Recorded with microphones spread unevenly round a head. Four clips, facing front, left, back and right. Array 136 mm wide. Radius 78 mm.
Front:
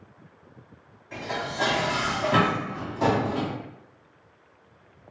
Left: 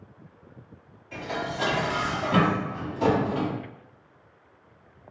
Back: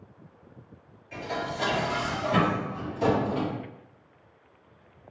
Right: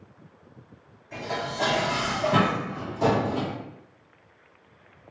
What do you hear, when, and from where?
1.1 s dishes clattering: 10° left, 2.0 m